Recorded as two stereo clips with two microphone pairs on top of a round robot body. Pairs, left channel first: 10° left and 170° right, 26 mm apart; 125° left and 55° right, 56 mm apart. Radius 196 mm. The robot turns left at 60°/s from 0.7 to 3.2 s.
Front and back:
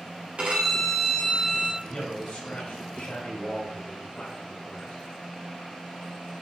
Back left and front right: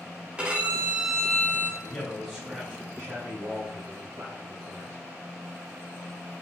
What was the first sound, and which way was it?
A violin, 125° right.